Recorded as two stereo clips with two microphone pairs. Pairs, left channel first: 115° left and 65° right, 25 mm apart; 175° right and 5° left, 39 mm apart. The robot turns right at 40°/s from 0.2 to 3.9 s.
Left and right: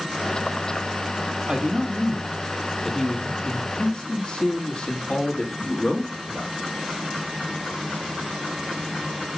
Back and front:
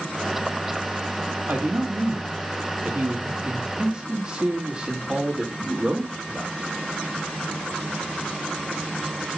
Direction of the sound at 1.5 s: 20° right.